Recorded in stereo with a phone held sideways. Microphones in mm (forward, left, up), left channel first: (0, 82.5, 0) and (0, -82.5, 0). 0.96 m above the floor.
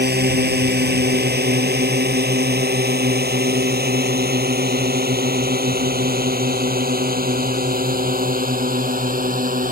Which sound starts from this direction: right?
A drone, at 0.0 s.